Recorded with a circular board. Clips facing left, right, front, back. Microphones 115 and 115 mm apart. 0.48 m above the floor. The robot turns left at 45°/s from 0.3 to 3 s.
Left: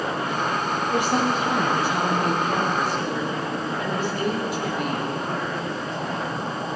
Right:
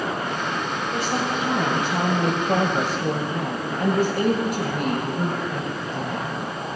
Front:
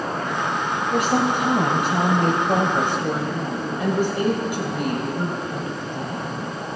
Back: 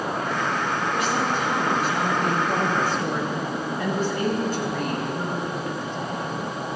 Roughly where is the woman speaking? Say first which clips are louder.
Left 3 dB, front 7 dB; ahead.